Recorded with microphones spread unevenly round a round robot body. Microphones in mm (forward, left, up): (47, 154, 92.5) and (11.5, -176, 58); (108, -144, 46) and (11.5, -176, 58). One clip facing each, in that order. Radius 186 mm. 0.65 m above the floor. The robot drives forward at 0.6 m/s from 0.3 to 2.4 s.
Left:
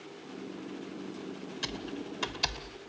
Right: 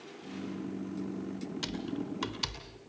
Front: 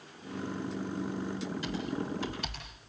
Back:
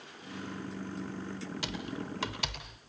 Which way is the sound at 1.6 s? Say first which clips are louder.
Right 2 dB, front 4 dB; 175° right.